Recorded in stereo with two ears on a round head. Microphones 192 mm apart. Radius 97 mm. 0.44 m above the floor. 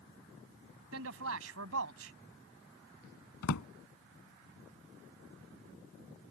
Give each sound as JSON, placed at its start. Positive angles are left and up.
{"t": 0.9, "sound": "a man speaking", "side_deg": -70}
{"t": 3.4, "sound": "a drawer", "side_deg": 85}